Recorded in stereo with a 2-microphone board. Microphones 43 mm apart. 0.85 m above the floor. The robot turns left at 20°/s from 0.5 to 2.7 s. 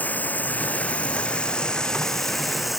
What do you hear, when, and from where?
0.0 s running water: 40° left; by 2.8 s straight ahead